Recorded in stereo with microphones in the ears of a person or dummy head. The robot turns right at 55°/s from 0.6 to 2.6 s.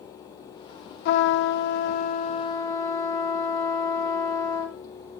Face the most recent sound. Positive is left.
turn(degrees=155)